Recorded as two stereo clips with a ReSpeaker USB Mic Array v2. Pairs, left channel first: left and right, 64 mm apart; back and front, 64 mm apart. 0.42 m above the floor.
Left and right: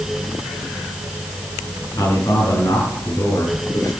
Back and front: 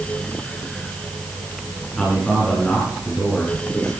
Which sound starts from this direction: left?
A man speaking, at 2.0 s.